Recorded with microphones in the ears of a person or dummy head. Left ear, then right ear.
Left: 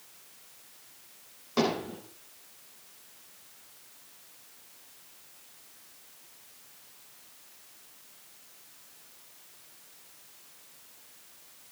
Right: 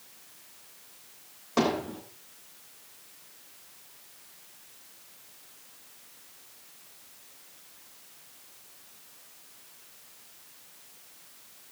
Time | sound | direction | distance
1.6 | hammering | 20° right (ahead or behind) | 8.5 m